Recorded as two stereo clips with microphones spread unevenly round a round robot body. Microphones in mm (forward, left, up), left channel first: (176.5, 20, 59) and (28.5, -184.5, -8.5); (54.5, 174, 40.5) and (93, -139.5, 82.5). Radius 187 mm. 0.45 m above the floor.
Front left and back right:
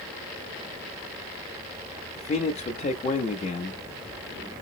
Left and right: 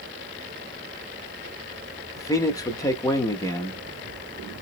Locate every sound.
2.2 s a man speaking: 115° left, 0.7 m